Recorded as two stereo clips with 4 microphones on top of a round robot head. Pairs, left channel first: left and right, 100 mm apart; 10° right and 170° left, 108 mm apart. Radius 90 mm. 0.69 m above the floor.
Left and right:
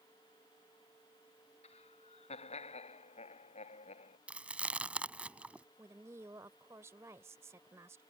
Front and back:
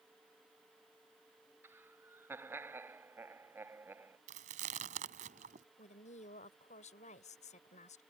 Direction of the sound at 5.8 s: 20° right.